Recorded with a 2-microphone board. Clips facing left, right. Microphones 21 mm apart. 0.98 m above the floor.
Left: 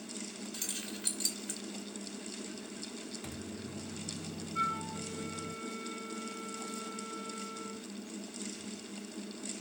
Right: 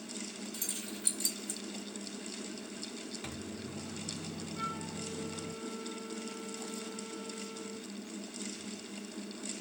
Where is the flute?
75° left (ahead or behind), 4 m.